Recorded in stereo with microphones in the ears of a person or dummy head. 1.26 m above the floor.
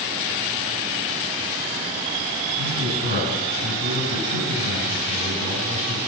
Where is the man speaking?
55° right (ahead or behind), 9 m.